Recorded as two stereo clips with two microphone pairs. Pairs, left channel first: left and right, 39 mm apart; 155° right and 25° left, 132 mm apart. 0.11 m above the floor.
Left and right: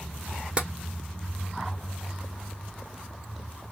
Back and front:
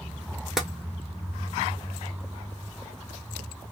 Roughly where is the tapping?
Ahead right.